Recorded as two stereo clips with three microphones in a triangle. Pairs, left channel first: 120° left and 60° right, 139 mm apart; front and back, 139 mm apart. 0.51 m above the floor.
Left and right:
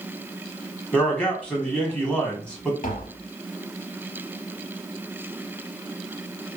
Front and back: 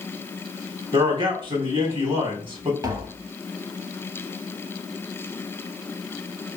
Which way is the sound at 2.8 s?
120° left.